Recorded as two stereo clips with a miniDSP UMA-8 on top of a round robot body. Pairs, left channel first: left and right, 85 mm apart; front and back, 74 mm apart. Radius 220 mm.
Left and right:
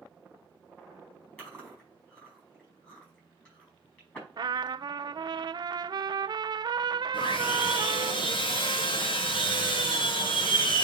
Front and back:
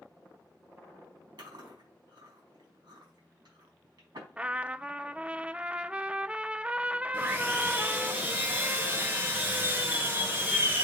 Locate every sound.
1.4 s chewing: 160° left, 4.5 m
4.4 s a trumpet: 105° right, 0.5 m
7.1 s sawing: 115° left, 1.3 m